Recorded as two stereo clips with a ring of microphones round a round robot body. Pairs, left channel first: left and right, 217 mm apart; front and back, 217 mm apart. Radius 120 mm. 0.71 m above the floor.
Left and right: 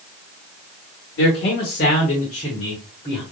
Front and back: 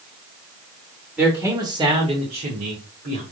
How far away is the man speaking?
About 1.6 m.